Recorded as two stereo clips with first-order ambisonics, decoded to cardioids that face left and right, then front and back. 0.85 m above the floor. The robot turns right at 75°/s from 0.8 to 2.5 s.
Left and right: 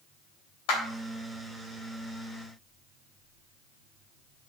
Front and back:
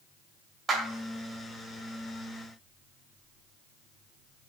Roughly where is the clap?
Left.